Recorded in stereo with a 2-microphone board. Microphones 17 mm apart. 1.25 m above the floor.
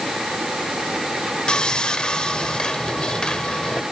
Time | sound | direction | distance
1.5 | sawing | 70° left (ahead or behind) | 2 m